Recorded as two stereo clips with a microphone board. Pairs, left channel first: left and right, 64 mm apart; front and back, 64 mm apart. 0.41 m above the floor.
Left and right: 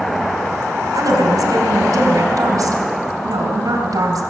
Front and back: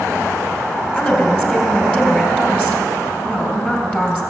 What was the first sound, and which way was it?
A woman speaking, 70° right.